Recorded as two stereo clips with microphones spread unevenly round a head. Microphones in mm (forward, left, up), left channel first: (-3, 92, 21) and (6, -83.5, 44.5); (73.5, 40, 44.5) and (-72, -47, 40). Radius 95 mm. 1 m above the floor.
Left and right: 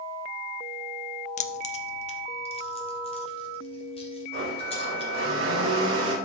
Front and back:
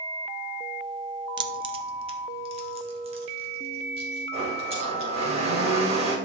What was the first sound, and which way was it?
Keys jangling, 145° left.